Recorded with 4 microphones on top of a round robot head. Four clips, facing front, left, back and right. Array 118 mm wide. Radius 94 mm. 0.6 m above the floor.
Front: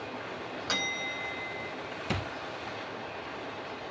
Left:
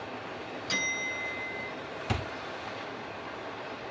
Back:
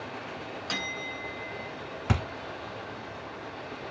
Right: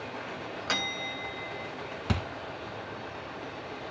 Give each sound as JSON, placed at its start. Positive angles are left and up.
{"t": 0.7, "sound": "a bell", "azimuth_deg": -80, "distance_m": 2.5}
{"t": 2.1, "sound": "a thud", "azimuth_deg": -150, "distance_m": 1.8}